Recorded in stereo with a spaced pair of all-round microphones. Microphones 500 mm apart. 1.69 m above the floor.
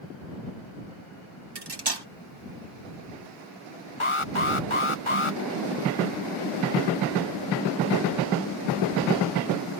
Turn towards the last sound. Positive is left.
turn(degrees=70)  # may be behind; listen again after turning